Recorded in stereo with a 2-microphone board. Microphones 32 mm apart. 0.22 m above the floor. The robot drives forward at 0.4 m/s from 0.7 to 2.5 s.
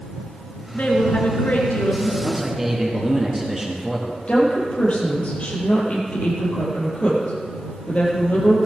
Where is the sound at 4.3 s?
40° left (ahead or behind), 6 m.